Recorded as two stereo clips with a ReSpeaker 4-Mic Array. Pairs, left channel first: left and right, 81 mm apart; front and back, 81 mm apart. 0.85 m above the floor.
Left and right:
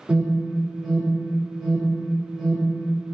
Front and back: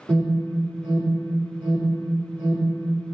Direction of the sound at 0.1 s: 175° right.